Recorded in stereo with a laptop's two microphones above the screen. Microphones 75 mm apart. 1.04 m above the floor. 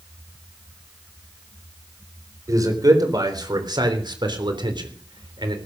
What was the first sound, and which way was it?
A man speaking, 50° right (ahead or behind).